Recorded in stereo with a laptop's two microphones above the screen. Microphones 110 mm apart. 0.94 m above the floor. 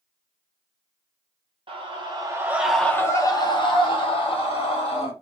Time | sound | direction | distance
1.7 | a scream | 55° right (ahead or behind) | 0.8 m